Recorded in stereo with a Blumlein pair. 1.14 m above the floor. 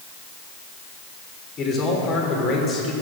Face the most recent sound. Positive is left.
turn(degrees=30)